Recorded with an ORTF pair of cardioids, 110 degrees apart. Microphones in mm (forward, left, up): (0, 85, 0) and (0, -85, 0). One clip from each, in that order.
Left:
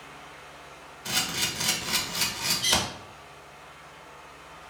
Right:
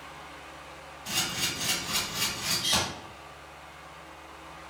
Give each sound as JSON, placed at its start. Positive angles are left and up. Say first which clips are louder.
{"t": 0.0, "sound": "a fan", "louder": "right 1 dB", "azimuth_deg": 5, "distance_m": 0.9}
{"t": 1.1, "sound": "a camera shutter", "louder": "left 2 dB", "azimuth_deg": 65, "distance_m": 0.9}